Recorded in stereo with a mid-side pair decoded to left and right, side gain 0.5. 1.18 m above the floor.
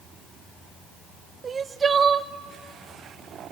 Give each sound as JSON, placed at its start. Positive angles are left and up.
{"t": 1.4, "sound": "crying", "azimuth_deg": -35, "distance_m": 0.7}